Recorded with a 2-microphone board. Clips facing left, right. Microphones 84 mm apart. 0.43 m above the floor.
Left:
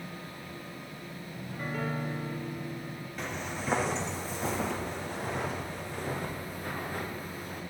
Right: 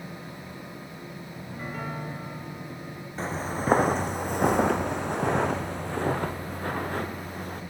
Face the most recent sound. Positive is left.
turn(degrees=-55)  # may be behind; listen again after turning